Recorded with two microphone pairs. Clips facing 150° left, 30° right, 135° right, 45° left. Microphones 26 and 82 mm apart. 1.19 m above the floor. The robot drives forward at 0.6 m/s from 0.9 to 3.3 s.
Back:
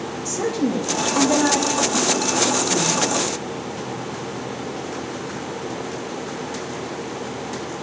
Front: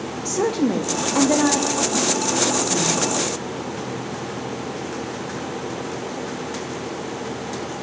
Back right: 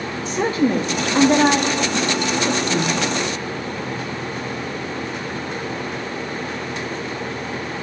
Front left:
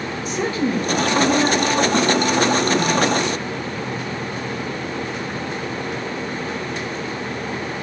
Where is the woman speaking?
80° right, 0.7 m; by 3.0 s 150° right, 1.3 m.